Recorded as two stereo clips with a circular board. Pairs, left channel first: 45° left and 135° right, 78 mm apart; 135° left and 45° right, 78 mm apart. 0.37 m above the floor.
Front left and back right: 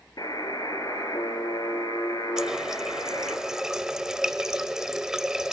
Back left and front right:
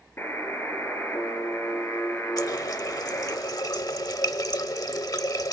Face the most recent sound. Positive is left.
turn(degrees=145)